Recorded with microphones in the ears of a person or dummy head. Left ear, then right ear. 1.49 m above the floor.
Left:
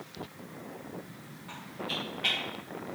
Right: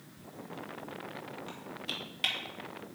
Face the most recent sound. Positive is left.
turn(degrees=-75)  # may be behind; listen again after turning